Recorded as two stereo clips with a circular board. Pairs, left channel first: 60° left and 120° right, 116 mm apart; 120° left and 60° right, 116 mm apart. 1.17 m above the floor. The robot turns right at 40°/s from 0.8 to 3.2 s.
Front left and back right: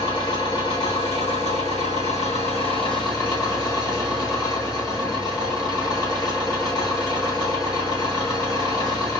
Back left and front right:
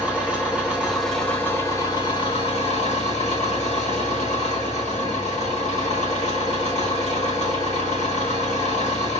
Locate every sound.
0.0 s an engine running: 20° left, 1.6 m; by 9.2 s 115° left, 1.6 m